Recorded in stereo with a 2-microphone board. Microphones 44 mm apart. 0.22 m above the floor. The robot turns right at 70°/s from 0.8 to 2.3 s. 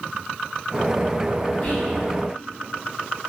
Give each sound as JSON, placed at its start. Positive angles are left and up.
{"t": 1.6, "sound": "whispering", "side_deg": 35, "distance_m": 1.1}